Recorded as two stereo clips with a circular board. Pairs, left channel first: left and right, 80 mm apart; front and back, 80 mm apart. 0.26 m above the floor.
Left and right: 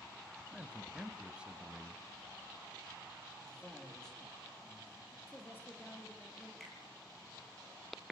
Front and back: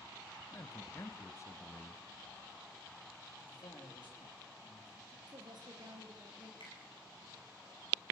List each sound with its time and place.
0.5 s a man speaking: 20° right, 1.2 m
3.4 s a man speaking: 10° left, 7.5 m
5.3 s a woman speaking: 155° left, 5.5 m
6.6 s a finger snap: 5° left, 5.5 m